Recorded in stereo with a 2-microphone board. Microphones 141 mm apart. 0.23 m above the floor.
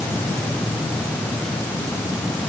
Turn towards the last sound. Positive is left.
No sound to turn to.